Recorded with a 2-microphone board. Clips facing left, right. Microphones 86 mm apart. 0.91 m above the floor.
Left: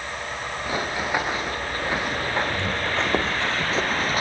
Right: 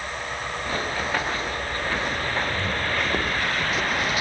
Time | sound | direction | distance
0.7 | running footsteps | 10° left (ahead or behind) | 6.5 m